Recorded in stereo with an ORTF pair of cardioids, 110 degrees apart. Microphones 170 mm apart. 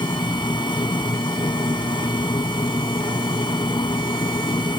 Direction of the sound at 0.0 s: 25° left.